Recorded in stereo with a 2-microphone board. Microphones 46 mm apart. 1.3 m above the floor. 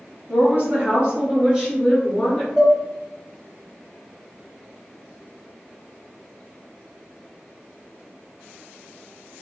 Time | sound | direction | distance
0.3 | a woman speaking | 45° right (ahead or behind) | 1.9 m
2.6 | dishes clattering | 5° right (ahead or behind) | 0.8 m